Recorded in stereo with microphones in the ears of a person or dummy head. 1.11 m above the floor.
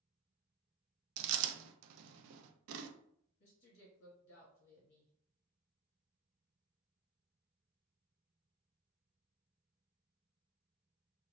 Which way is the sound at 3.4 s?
60° left (ahead or behind).